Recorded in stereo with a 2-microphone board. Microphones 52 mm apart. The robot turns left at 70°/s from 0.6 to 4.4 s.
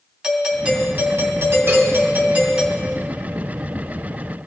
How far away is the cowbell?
About 3.5 m.